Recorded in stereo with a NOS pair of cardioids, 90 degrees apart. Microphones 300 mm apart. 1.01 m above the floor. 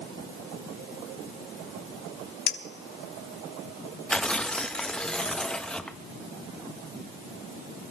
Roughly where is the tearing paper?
Ahead.